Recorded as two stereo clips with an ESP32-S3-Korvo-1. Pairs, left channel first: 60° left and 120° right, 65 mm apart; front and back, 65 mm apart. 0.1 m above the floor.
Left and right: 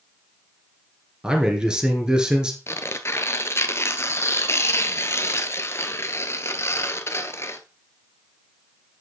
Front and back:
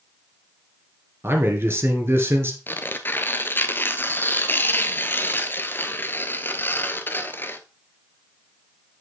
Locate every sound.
1.2 s a man speaking: 170° left, 2 m
2.7 s tearing paper: 40° left, 0.9 m